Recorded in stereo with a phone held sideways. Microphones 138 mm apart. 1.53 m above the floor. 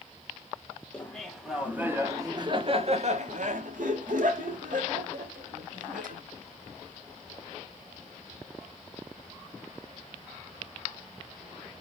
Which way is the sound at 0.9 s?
10° left (ahead or behind).